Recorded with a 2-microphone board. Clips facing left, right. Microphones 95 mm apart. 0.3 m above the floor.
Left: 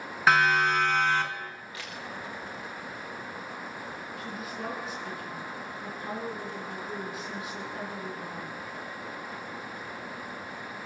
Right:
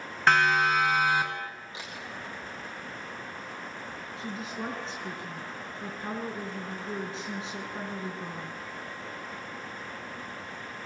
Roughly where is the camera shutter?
Right.